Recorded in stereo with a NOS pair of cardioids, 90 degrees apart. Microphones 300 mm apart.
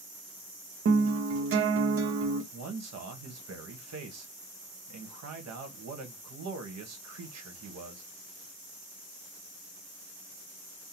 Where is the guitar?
50° right, 1.0 m.